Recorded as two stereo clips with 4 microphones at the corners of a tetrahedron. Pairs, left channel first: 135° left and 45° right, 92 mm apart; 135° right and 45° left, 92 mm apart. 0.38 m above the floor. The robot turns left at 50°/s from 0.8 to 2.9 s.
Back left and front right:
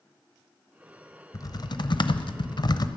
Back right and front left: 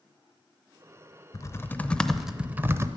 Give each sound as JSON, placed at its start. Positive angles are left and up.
{"t": 1.3, "sound": "typing on a keyboard", "azimuth_deg": 175, "distance_m": 0.6}